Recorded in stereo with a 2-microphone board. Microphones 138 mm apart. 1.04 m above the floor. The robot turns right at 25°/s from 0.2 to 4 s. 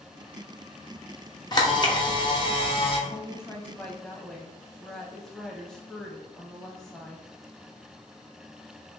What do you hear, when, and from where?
1.5 s a camera shutter: 55° left, 0.7 m; by 3.0 s 90° left, 0.7 m
3.1 s a woman speaking: 25° left (ahead or behind), 0.6 m; by 7.3 s 5° left (ahead or behind), 0.6 m